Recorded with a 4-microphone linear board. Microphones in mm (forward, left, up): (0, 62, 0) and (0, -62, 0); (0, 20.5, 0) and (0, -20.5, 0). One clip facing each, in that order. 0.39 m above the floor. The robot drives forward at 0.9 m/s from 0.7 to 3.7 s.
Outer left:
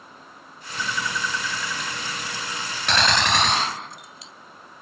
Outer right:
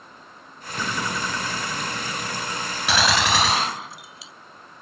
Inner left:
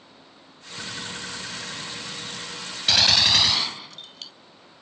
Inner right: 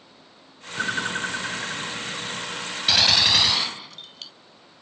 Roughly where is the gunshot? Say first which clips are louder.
Outer right 1 dB, even; centre.